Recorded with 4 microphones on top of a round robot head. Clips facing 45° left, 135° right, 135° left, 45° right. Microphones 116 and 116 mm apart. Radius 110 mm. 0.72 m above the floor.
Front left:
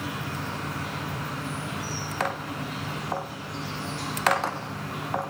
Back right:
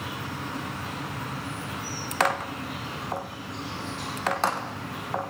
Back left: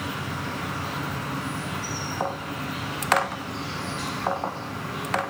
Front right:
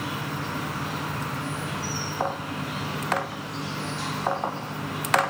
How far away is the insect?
About 9 m.